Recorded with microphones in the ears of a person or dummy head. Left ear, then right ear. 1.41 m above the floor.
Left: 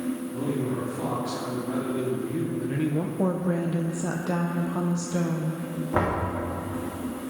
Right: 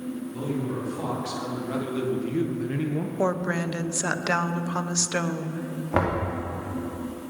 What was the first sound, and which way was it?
A man speaking, 45° right (ahead or behind).